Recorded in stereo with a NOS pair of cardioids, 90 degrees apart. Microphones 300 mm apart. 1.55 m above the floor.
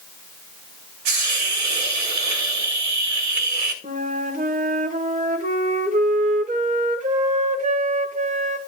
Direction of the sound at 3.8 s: 25° right.